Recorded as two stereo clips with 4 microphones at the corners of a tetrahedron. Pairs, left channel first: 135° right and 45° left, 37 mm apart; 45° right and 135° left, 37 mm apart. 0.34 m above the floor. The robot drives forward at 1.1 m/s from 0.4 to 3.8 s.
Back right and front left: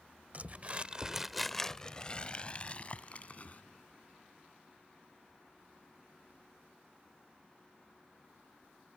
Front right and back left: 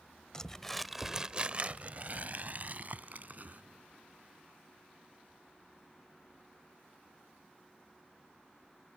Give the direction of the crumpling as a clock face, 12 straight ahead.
11 o'clock.